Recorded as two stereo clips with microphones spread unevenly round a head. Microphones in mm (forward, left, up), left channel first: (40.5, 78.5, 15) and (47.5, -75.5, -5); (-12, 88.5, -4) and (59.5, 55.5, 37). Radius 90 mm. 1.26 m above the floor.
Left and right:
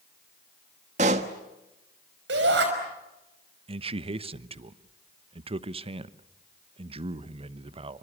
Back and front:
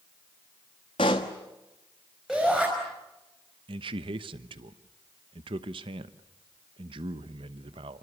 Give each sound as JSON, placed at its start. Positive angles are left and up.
{"t": 1.0, "sound": "a pop", "azimuth_deg": -140, "distance_m": 1.2}
{"t": 2.3, "sound": "a shout", "azimuth_deg": -110, "distance_m": 5.5}
{"t": 3.7, "sound": "a man speaking", "azimuth_deg": -35, "distance_m": 0.9}